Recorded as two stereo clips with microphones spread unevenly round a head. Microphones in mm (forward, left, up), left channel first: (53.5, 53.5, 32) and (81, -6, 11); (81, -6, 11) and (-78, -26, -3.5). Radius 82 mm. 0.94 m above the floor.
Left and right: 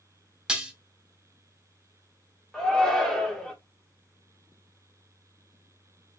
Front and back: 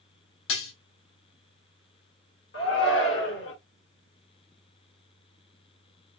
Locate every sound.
0.5 s dishes clattering: 15° left, 1.3 m
2.5 s a shout: 30° left, 2.5 m